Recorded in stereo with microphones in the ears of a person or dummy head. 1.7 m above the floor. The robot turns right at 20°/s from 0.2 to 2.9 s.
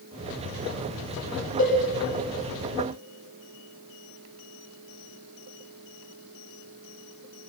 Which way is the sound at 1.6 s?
50° left (ahead or behind).